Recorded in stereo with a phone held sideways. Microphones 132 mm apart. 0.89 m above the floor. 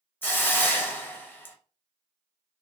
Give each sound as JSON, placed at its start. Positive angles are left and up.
{"t": 0.2, "sound": "a hiss", "side_deg": 15, "distance_m": 0.6}